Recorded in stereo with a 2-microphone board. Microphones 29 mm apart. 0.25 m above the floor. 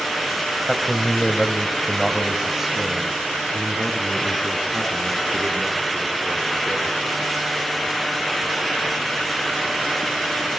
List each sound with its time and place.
0.6 s a man speaking: 15° left (ahead or behind), 1.0 m; by 7.0 s 30° right (ahead or behind), 3.5 m